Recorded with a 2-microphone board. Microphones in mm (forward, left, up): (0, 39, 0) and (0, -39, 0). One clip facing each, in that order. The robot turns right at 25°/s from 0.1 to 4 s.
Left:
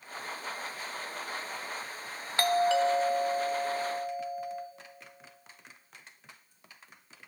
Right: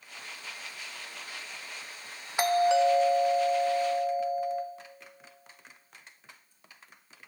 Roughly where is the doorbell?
Behind.